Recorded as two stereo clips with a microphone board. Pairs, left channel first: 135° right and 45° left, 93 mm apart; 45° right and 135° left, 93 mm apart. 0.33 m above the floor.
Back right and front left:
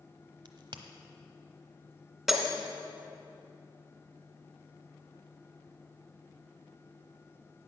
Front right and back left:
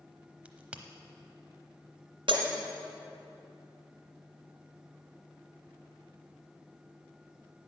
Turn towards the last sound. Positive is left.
turn(degrees=130)